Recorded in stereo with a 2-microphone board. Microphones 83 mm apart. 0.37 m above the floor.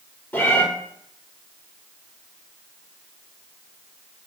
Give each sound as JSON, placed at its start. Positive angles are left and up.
{"t": 0.3, "sound": "a cat meowing", "side_deg": 20, "distance_m": 3.5}